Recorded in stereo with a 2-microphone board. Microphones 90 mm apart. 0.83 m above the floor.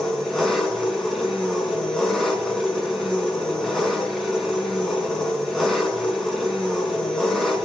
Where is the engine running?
Centre (ahead or behind), 4.5 m.